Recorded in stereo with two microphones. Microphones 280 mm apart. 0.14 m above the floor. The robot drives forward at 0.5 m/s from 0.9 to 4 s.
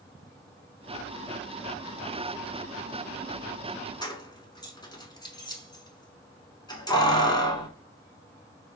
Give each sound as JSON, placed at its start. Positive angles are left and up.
{"t": 4.0, "sound": "keys jangling", "side_deg": 15, "distance_m": 0.9}